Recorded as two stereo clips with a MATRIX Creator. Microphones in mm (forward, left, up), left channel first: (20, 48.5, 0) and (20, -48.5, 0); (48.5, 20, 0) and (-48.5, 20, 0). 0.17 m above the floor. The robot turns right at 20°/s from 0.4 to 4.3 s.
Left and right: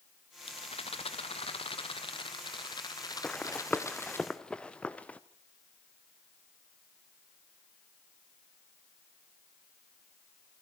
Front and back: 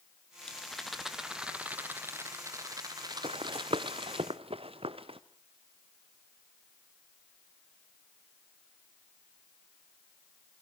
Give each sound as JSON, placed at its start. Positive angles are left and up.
{"t": 0.4, "sound": "a rattle", "azimuth_deg": 80, "distance_m": 1.5}
{"t": 3.2, "sound": "running footsteps", "azimuth_deg": 170, "distance_m": 0.7}